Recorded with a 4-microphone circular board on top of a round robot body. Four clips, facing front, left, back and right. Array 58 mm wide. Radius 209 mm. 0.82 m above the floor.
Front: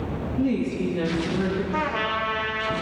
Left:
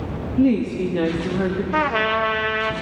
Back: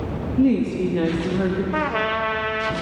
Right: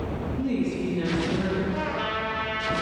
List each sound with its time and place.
0.4 s a woman speaking: 125° left, 2.5 m
1.7 s a trumpet: 115° left, 1.3 m